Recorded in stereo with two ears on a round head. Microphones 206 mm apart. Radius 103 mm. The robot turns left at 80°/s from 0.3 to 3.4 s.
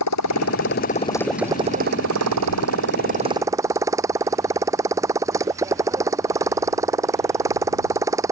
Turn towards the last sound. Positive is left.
turn(degrees=-165)